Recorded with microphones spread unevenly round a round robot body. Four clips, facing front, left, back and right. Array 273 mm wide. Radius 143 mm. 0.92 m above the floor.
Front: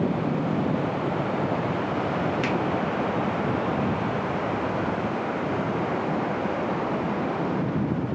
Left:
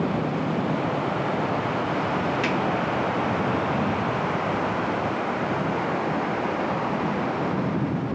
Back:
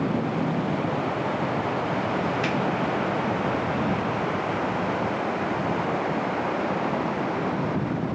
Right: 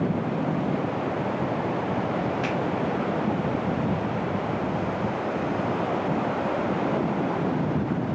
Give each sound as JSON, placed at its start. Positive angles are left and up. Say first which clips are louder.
{"t": 2.4, "sound": "a finger snap", "louder": "left 2 dB, even", "azimuth_deg": 10, "distance_m": 2.0}